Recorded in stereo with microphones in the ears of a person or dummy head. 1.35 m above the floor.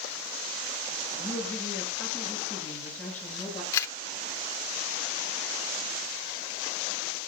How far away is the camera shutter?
About 1.5 m.